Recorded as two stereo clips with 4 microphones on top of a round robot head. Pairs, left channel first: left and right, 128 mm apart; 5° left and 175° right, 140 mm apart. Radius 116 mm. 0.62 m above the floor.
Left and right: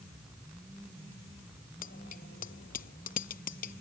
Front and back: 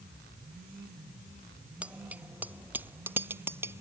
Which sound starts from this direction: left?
A bicycle bell, at 1.8 s.